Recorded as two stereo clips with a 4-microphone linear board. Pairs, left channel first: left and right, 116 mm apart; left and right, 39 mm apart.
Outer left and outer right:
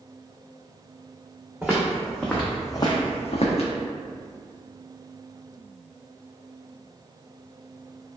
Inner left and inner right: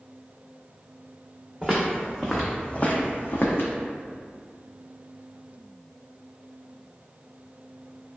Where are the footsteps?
10° right (ahead or behind), 0.9 m; by 3.7 s 75° left (ahead or behind), 0.6 m.